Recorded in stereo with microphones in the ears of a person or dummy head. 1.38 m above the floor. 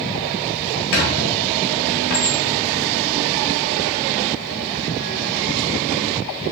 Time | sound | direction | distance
0.9 | a squeak | 40° left (ahead or behind) | 0.7 m